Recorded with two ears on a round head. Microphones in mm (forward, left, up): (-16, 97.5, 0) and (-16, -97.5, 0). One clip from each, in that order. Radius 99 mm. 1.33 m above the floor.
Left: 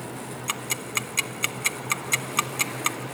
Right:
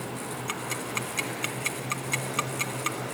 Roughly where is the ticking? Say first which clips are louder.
Left 4 dB; centre.